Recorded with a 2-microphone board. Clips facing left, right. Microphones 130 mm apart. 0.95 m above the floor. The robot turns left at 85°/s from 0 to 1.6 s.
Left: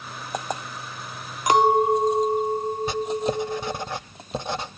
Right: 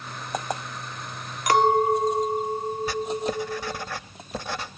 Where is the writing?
20° left (ahead or behind), 0.7 m.